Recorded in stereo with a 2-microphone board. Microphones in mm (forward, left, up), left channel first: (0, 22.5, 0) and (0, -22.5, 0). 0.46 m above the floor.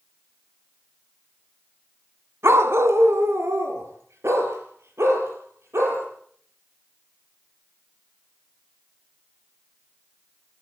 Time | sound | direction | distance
2.4 | a dog barking | 80° right | 1.7 m